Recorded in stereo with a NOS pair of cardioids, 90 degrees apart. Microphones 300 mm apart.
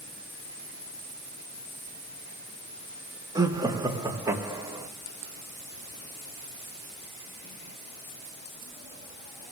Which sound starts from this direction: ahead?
Laughter, at 3.4 s.